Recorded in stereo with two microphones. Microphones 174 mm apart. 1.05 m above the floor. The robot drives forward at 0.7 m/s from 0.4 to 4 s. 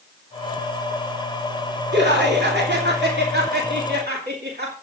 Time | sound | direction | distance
1.9 | laughter | 75° right (ahead or behind) | 3 m